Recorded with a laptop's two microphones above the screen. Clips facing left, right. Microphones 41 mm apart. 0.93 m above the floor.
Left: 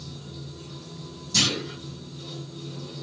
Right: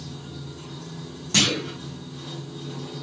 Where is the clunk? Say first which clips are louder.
Right 3 dB; 55° right (ahead or behind), 1.5 m.